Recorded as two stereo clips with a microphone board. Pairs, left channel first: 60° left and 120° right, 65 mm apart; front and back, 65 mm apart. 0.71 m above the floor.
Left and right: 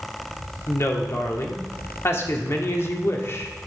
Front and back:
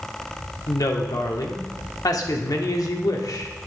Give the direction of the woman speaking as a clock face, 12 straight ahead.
12 o'clock.